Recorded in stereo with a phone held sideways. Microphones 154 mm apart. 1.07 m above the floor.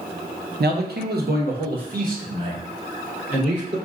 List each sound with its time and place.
0.6 s a man speaking: 75° right (ahead or behind), 0.6 m; by 3.8 s 50° right (ahead or behind), 3 m